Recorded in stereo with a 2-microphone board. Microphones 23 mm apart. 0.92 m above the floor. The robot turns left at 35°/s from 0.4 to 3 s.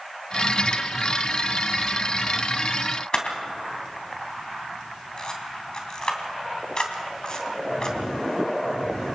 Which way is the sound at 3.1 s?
40° left (ahead or behind).